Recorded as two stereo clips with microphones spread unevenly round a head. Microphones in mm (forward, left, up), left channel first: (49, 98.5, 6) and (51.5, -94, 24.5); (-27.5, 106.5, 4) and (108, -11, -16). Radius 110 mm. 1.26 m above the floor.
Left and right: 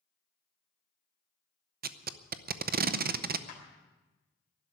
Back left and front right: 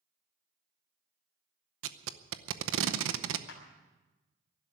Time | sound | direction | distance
1.8 | tape being pulled | 45° right | 0.7 m
3.5 | a clap | 145° left | 3.5 m